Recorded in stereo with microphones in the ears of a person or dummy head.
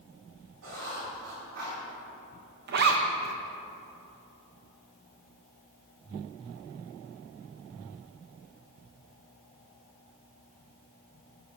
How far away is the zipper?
About 1.0 m.